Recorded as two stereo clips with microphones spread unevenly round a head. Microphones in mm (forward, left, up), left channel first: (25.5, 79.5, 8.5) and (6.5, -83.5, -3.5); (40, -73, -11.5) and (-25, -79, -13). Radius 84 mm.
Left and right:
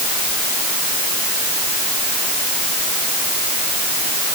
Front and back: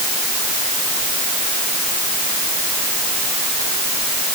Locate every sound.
Only background noise.